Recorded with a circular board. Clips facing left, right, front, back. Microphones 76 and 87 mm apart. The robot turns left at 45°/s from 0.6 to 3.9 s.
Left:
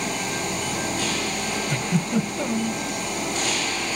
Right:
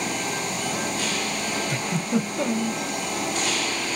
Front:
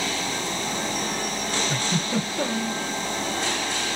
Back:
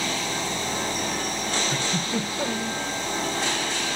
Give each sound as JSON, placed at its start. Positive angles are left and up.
{"t": 1.7, "sound": "a giggle", "azimuth_deg": -10, "distance_m": 3.0}